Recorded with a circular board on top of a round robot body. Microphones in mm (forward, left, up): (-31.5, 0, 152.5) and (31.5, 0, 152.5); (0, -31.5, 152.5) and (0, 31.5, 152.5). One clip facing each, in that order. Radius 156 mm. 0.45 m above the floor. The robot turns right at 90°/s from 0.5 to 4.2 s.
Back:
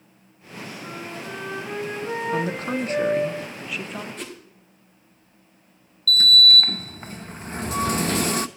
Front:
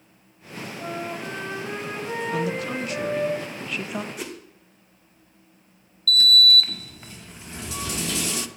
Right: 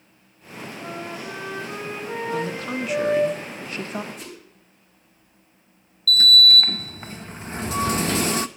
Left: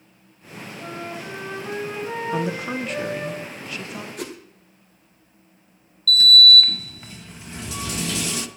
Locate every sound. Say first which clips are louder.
0.8 s a flute: front 5 dB, left 1 dB; 10° left, 8.5 m; by 3.3 s 125° right, 8.5 m
2.3 s a woman speaking: back 1 dB, left 2 dB; 135° left, 1.1 m; by 4.1 s 65° right, 1.1 m
4.2 s a whoosh: front 1 dB, left 6 dB; 75° left, 1.8 m; by 4.4 s 80° left, 1.8 m
6.1 s a sliding door: back 1 dB, left 2 dB; 135° right, 0.6 m